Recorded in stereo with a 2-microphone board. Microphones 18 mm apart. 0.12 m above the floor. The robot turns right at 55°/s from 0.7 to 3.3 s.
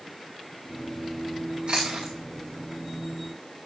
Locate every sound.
1.7 s chewing: 75° right (ahead or behind), 6.5 m; by 2.1 s 80° right, 6.5 m